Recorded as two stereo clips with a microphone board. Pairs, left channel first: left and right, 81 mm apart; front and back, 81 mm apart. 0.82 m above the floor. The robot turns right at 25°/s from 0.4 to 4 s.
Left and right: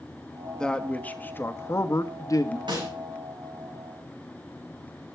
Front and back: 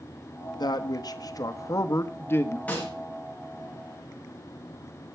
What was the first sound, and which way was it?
A man speaking, 10° left.